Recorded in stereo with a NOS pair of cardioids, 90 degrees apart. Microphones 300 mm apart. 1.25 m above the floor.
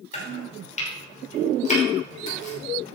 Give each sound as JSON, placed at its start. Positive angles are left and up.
{"t": 0.1, "sound": "chopping", "azimuth_deg": 25, "distance_m": 5.5}